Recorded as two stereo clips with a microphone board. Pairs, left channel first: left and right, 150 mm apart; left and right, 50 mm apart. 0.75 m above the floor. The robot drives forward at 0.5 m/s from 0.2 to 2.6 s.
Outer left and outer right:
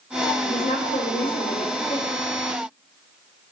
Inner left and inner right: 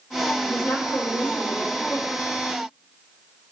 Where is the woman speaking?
65° left (ahead or behind), 2.5 m; by 2.2 s 55° left (ahead or behind), 3 m.